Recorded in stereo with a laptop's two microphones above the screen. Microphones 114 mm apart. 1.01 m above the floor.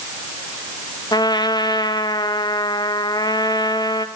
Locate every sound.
1.1 s a trumpet: 40° left (ahead or behind), 0.7 m